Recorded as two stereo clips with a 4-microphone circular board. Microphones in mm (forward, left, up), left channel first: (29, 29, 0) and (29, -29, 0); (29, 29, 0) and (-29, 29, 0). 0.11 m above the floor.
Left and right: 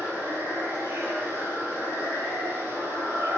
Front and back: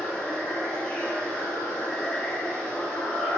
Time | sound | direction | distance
0.0 | running water | 70° right | 1.6 m